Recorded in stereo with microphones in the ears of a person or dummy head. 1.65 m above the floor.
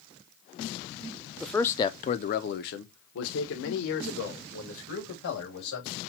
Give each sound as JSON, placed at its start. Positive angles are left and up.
{"t": 1.4, "sound": "a man speaking", "side_deg": -5, "distance_m": 0.6}